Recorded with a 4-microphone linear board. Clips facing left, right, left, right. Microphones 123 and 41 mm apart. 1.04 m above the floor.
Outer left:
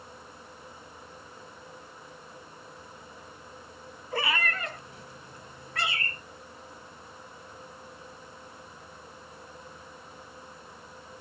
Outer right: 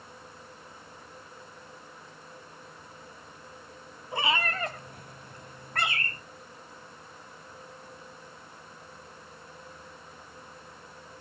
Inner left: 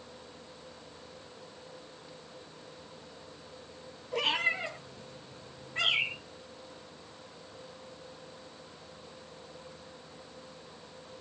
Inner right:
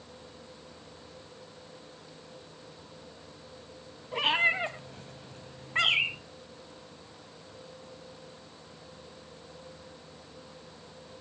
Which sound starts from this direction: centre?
A cat meowing, at 4.1 s.